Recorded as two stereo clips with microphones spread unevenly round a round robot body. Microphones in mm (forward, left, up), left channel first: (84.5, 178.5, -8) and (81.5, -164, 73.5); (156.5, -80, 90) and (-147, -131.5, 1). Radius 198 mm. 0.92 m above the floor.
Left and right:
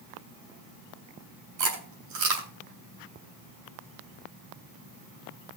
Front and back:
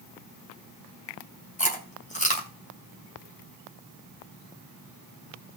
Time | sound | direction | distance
1.6 | chewing | 55° right | 3.5 m